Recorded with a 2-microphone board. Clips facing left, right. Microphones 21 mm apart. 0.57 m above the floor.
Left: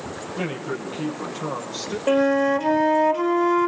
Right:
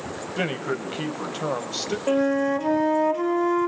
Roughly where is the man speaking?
Right.